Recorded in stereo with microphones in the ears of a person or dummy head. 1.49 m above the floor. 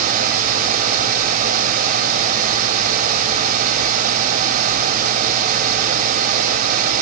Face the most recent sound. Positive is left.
No sound to turn to.